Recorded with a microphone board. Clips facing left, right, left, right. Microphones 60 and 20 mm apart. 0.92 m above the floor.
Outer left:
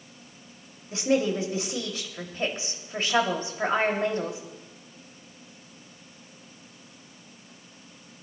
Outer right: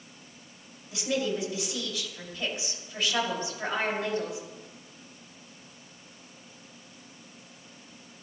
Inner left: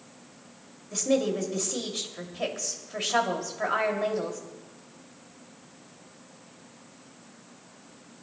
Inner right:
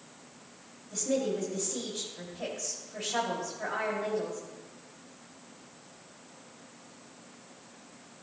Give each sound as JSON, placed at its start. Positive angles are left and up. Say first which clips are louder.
{"t": 0.9, "sound": "a woman speaking", "louder": "outer left 5 dB, inner left 5 dB", "side_deg": 40, "distance_m": 2.5}